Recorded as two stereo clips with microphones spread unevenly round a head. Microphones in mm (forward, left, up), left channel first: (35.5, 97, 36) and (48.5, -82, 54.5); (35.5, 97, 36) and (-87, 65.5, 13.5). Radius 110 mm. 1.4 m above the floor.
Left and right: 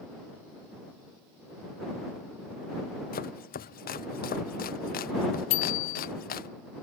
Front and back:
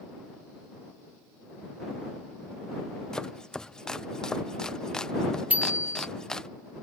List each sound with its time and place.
3.1 s chopping: 105° left
5.5 s a bicycle bell: 115° left